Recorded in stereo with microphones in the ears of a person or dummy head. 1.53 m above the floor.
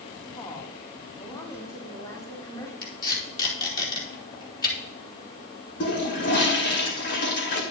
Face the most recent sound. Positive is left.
turn(degrees=50)  # may be behind; listen again after turning